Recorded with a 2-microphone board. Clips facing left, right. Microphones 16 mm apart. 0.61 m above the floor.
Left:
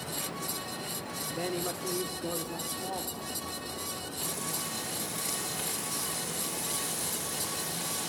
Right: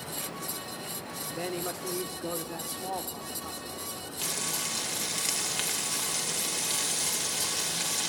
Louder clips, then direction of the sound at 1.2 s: Even; 5° right (ahead or behind).